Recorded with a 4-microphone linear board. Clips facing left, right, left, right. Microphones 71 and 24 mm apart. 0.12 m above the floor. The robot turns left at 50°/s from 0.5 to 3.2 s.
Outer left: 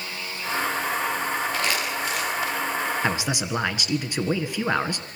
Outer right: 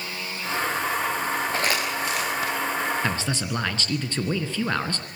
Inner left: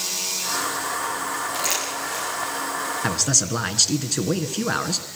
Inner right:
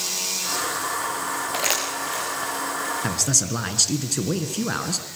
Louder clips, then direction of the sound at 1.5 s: Outer right 1 dB, inner right 1 dB; 35° right (ahead or behind).